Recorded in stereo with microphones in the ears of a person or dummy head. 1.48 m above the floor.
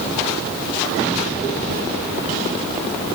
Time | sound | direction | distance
1.7 | a zipper | 40° right (ahead or behind) | 1.5 m